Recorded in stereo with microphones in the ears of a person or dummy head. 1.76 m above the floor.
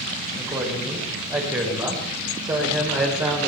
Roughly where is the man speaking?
Centre.